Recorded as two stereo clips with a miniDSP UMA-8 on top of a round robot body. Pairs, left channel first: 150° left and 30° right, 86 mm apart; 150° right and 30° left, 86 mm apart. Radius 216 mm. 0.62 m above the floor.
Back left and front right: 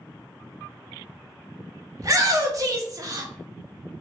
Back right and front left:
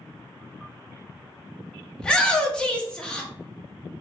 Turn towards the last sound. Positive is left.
turn(degrees=-70)